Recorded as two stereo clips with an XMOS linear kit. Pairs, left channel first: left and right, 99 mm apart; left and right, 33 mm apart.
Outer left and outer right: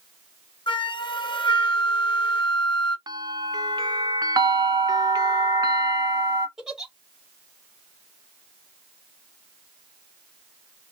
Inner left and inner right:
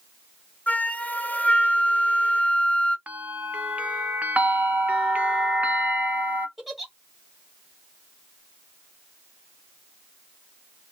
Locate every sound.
0.7 s a flute: 50° left (ahead or behind), 0.7 m
3.1 s a bell: 40° right (ahead or behind), 0.5 m
4.4 s a bell: 40° right (ahead or behind), 0.7 m
6.6 s a giggle: 5° right (ahead or behind), 1.3 m